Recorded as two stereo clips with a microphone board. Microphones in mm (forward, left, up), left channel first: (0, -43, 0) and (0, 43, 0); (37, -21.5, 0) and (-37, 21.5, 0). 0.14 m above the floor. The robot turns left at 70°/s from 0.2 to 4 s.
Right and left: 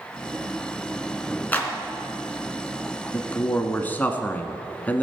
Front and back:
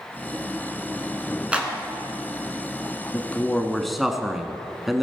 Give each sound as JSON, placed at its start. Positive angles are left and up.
{"t": 1.5, "sound": "a clap", "azimuth_deg": -145, "distance_m": 1.5}
{"t": 3.1, "sound": "a man speaking", "azimuth_deg": -65, "distance_m": 1.1}